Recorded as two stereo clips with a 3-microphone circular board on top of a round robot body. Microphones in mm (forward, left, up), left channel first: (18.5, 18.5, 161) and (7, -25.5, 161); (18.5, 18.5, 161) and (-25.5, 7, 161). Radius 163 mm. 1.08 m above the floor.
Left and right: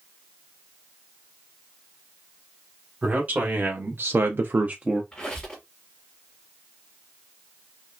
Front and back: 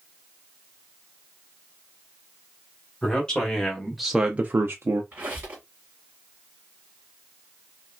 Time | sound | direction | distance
3.0 | a man speaking | 55° right | 1.4 m
5.1 | a squeak | 145° left | 1.0 m